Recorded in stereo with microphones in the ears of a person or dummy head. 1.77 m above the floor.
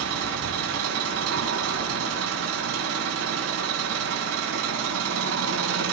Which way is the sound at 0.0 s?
80° right.